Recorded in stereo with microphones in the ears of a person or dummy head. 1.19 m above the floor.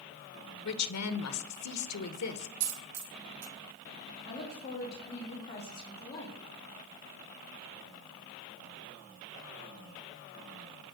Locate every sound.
0.7 s a woman speaking: 80° left, 0.9 m
2.6 s a dropped coin: 65° right (ahead or behind), 1.6 m
4.2 s a woman speaking: 25° left (ahead or behind), 3.5 m